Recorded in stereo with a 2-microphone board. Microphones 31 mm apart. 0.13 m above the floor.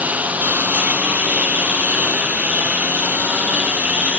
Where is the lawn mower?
65° right (ahead or behind); by 4.2 s 60° right (ahead or behind).